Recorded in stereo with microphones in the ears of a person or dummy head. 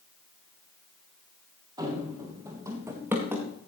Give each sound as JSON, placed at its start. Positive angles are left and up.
{"t": 1.8, "sound": "running footsteps", "side_deg": -20, "distance_m": 2.5}